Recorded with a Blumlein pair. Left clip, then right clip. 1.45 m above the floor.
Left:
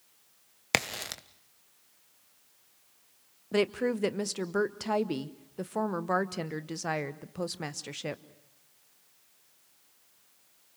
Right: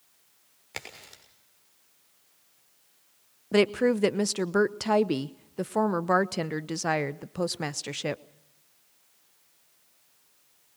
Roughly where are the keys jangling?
I don't hear keys jangling.